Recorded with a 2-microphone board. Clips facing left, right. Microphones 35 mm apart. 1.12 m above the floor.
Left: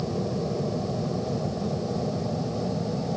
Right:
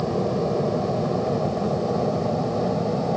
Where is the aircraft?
35° right (ahead or behind).